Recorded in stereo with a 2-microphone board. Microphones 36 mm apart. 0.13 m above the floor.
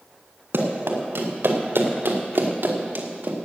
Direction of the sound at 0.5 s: 80° right.